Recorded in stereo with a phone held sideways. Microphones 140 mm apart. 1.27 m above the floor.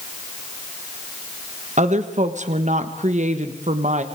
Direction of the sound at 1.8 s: 60° right (ahead or behind).